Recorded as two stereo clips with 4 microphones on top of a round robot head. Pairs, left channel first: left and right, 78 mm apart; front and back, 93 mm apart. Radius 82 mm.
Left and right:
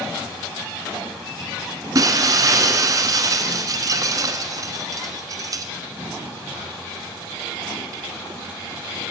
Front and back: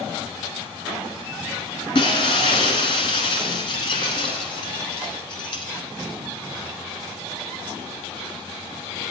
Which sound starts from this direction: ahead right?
Breaking glass, at 1.9 s.